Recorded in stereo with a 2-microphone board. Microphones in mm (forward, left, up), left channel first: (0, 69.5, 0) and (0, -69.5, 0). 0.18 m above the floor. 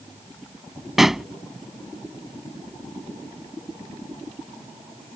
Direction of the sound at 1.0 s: Centre (ahead or behind).